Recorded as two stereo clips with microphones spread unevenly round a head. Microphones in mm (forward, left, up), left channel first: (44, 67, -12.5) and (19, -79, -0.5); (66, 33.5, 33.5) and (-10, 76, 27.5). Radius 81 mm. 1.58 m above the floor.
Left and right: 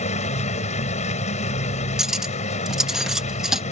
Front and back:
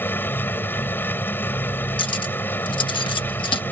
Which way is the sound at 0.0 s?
35° left.